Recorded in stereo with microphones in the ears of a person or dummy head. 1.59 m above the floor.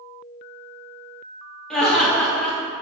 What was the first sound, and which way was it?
Laughter, centre (ahead or behind).